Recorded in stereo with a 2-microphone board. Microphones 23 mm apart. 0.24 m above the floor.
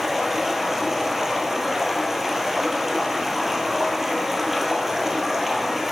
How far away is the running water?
About 1.5 m.